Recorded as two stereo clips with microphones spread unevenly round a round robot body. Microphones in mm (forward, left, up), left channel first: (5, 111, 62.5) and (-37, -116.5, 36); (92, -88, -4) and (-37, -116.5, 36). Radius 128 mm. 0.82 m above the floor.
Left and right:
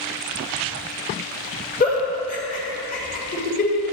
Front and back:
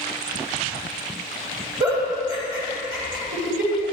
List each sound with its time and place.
1.8 s a giggle: 135° left, 2.5 m